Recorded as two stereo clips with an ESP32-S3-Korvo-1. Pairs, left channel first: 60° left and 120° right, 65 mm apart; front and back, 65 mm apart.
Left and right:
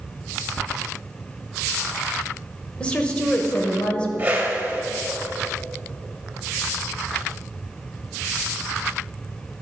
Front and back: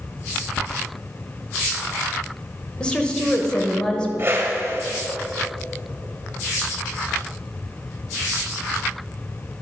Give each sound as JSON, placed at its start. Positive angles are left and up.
{"t": 2.8, "sound": "a woman speaking", "azimuth_deg": 40, "distance_m": 1.0}
{"t": 4.2, "sound": "a whoosh", "azimuth_deg": -170, "distance_m": 1.8}